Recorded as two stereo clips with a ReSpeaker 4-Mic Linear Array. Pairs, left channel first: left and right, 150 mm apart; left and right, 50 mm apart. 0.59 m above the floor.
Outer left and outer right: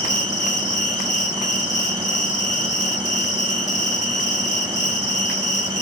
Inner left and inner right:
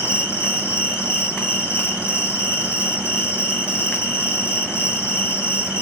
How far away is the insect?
About 2.5 m.